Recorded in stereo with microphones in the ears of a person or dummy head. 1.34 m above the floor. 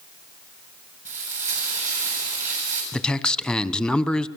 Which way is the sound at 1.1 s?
15° right (ahead or behind).